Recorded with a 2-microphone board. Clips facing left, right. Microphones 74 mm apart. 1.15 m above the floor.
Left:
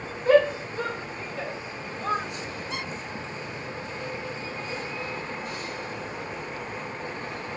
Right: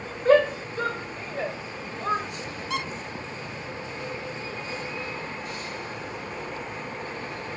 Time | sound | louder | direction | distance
0.2 | a shout | even | 45° right (ahead or behind) | 3.5 m
2.7 | a squeak | right 7 dB | 80° right | 1.5 m